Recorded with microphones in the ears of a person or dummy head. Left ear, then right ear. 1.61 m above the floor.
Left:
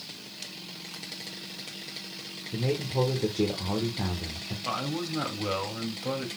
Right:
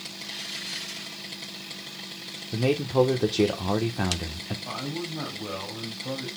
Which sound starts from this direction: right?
A man speaking, at 2.5 s.